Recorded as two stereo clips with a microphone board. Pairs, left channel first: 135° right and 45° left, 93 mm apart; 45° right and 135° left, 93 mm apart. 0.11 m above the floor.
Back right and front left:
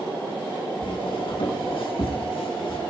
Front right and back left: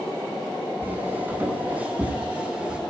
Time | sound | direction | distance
0.8 | footsteps | 155° right | 6 m